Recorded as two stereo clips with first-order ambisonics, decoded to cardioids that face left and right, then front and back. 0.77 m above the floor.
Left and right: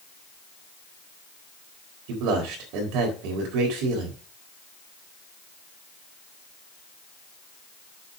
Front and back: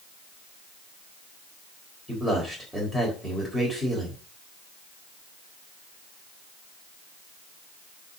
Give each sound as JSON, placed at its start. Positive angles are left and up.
{"t": 2.1, "sound": "a man speaking", "azimuth_deg": -90, "distance_m": 4.0}